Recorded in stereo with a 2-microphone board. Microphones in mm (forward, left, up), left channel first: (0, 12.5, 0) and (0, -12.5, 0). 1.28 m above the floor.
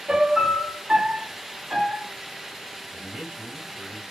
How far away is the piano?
About 1.1 m.